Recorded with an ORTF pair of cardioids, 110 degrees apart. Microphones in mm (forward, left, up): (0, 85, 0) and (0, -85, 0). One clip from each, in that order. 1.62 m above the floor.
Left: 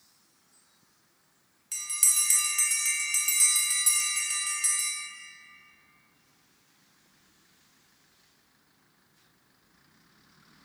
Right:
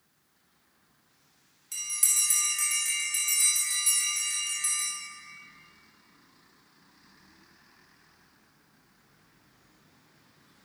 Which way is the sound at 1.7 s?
20° left.